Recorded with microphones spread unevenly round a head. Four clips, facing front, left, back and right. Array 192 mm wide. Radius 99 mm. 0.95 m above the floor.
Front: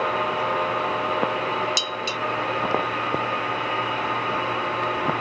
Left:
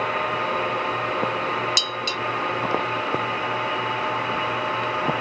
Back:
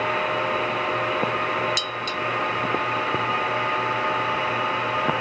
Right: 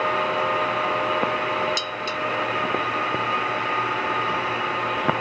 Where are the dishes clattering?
55° left.